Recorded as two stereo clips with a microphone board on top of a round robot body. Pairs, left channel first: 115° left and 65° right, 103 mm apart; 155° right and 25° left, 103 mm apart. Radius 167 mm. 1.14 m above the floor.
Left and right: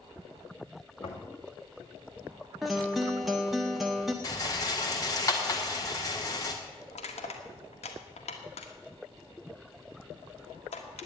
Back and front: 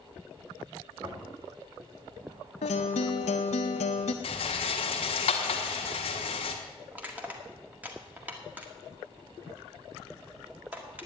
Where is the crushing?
95° left, 1.6 m.